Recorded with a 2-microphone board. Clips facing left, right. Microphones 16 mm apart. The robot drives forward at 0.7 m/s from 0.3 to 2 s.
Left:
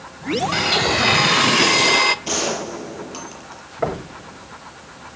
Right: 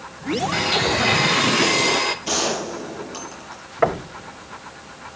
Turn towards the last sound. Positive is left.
turn(degrees=-30)  # may be behind; listen again after turning